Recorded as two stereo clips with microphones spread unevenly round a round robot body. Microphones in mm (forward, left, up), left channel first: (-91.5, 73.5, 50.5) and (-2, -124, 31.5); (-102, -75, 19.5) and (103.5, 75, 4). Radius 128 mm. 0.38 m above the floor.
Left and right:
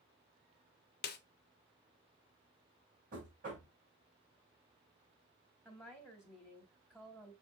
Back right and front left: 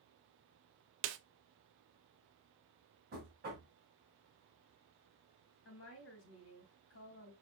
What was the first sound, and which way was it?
A snare drum, 70° left.